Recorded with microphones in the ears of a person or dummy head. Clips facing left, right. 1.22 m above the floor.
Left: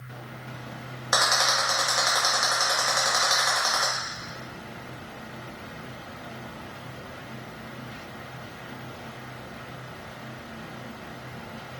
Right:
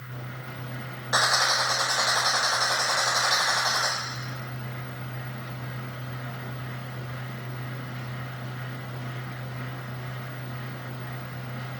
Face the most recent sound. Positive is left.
turn(degrees=65)  # may be behind; listen again after turning